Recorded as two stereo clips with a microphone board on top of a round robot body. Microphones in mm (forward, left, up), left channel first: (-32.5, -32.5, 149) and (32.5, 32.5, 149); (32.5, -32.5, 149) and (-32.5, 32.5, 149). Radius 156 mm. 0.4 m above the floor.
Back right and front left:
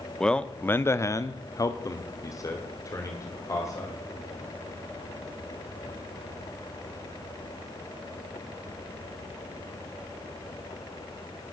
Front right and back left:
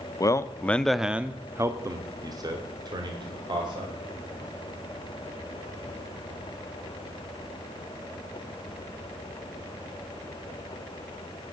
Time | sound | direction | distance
0.2 | a man speaking | 55° right | 0.9 m